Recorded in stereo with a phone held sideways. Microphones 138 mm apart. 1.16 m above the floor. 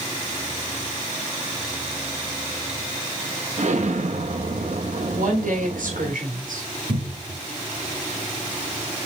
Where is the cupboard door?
80° right, 4.5 m.